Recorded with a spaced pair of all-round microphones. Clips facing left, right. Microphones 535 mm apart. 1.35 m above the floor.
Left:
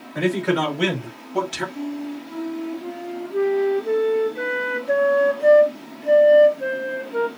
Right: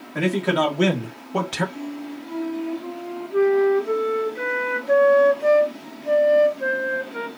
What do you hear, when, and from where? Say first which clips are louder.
0.1 s a man speaking: left 1 dB; 50° right (ahead or behind), 1.9 m; by 1.6 s 65° right (ahead or behind), 1.0 m
1.8 s a flute: left 3 dB; 30° right (ahead or behind), 0.8 m